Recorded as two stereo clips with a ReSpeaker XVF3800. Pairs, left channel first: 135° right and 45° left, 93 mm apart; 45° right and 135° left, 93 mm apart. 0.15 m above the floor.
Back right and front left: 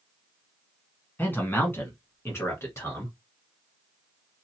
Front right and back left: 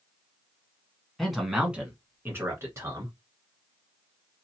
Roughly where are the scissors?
No scissors in this recording.